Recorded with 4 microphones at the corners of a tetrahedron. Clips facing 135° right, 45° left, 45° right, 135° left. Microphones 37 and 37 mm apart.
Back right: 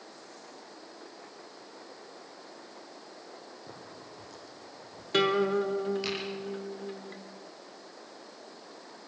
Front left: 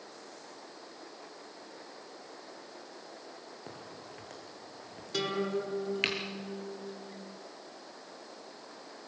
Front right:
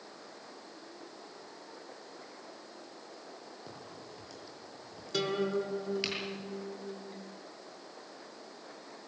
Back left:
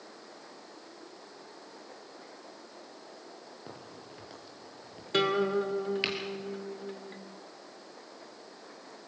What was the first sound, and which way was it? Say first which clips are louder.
A crack: even, back left 1 dB; 75° left.